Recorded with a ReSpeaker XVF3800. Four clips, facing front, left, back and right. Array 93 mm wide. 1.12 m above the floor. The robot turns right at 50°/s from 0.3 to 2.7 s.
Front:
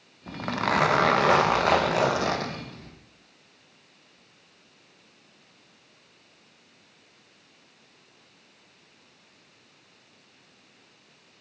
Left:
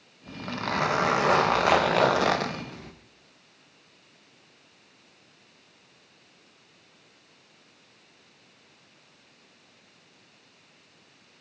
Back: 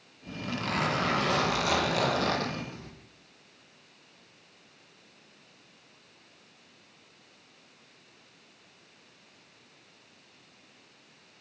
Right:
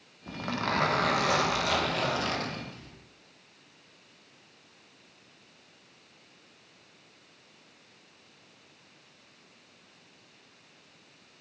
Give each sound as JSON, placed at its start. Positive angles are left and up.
{"t": 0.3, "sound": "a zipper", "azimuth_deg": -20, "distance_m": 0.8}